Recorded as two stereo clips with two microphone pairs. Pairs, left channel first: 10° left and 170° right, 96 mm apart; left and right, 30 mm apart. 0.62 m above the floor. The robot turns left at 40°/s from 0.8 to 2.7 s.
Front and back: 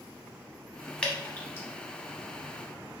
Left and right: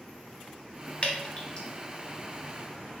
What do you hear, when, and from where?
1.0 s dripping: 85° left, 0.9 m; by 1.7 s 60° left, 0.9 m